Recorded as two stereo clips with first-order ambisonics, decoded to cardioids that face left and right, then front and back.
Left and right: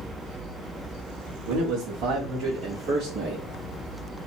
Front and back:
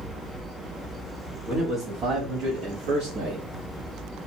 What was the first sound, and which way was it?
A man speaking, 110° right.